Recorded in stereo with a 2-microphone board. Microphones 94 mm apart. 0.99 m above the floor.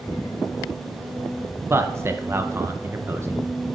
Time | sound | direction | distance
1.7 | a man speaking | 25° right (ahead or behind) | 0.6 m